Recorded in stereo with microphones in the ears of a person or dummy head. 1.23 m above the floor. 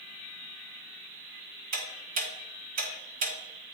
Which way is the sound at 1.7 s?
45° right (ahead or behind).